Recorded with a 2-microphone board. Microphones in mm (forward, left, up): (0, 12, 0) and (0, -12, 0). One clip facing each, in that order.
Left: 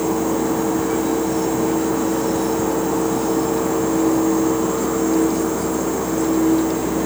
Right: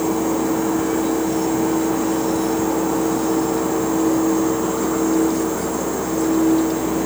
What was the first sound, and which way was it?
Only background noise.